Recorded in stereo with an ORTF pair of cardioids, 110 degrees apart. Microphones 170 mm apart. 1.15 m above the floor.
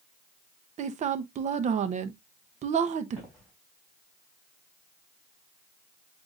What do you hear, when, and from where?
0.8 s a woman speaking: 45° right, 0.8 m
3.2 s footsteps: 5° left, 4 m